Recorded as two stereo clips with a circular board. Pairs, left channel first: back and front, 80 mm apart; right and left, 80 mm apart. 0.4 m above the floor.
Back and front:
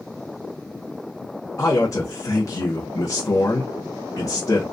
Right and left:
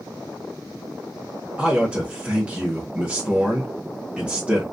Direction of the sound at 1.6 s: 160° left.